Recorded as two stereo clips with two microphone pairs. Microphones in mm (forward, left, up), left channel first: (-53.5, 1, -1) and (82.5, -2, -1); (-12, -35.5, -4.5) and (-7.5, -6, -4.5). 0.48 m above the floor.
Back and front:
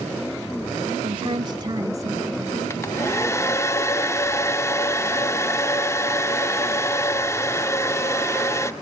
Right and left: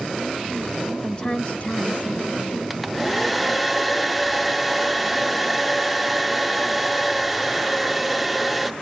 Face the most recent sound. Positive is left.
turn(degrees=170)